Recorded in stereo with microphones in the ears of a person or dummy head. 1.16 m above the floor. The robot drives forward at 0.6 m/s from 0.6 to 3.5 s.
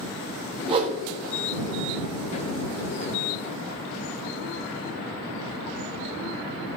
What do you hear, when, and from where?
0.7 s a whoosh: 30° right (ahead or behind), 0.8 m; by 1.0 s 35° right (ahead or behind), 0.6 m